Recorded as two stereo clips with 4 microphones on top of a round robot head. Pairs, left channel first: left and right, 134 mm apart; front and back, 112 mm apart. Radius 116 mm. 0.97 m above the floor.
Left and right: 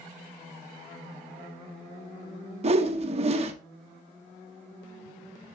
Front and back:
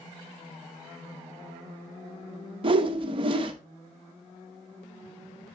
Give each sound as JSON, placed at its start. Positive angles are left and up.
{"t": 2.6, "sound": "a whoosh", "azimuth_deg": -135, "distance_m": 0.8}